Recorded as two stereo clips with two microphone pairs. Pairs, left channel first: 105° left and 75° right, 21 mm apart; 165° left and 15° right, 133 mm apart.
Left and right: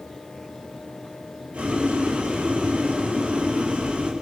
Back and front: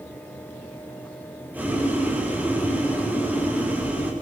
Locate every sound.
1.5 s boiling: 90° right, 8.5 m